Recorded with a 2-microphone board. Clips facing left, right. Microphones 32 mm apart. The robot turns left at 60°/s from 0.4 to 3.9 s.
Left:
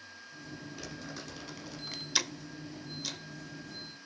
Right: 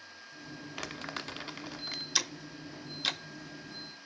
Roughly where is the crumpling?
Right.